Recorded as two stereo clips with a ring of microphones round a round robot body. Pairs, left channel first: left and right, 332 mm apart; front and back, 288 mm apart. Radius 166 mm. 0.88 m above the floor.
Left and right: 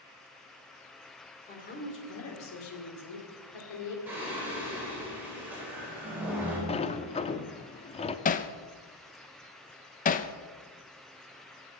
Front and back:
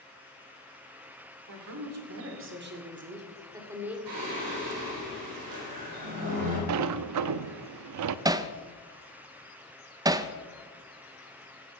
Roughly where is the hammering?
Behind left.